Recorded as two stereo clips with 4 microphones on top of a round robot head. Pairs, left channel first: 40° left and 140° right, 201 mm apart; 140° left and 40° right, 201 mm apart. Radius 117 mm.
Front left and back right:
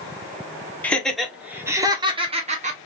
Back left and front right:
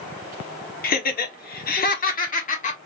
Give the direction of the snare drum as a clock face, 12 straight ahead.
No snare drum in this recording.